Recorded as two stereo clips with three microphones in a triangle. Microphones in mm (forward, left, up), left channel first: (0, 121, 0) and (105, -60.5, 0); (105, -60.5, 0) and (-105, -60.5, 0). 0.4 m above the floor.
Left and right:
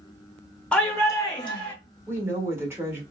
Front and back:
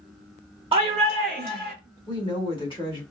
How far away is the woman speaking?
About 1.1 m.